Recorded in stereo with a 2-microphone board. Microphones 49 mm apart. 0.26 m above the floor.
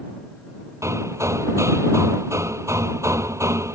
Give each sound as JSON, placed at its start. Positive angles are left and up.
{"t": 0.8, "sound": "hammering", "side_deg": -70}